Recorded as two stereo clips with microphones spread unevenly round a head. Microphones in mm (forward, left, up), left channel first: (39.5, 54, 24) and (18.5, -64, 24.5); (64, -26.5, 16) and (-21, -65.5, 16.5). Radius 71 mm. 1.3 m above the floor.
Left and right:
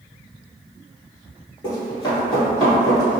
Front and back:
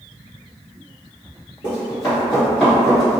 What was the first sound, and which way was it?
Running footsteps, 45° left.